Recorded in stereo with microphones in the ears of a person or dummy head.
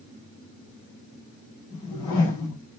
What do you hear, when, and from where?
1.7 s a whoosh: 25° left (ahead or behind), 4 m